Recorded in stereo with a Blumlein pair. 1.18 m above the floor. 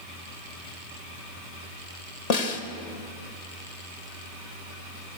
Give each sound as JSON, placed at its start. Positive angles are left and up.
{"t": 2.3, "sound": "a snare drum", "azimuth_deg": 40, "distance_m": 3.0}